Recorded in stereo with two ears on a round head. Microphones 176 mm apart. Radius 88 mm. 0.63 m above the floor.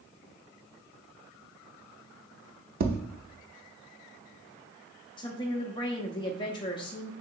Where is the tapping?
50° right (ahead or behind), 0.6 m.